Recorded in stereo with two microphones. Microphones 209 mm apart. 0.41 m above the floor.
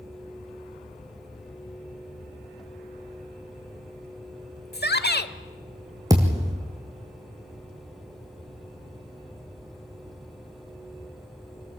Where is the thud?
15° right (ahead or behind), 3 m.